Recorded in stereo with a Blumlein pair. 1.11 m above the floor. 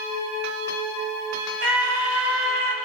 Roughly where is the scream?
Ahead right.